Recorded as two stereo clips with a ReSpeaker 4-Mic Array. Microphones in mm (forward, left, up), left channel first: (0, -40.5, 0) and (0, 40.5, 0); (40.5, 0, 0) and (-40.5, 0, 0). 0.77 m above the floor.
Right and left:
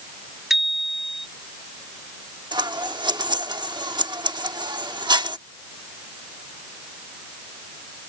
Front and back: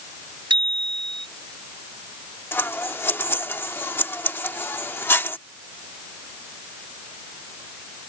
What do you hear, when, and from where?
0.5 s a bicycle bell: 175° left
2.5 s scissors: 60° left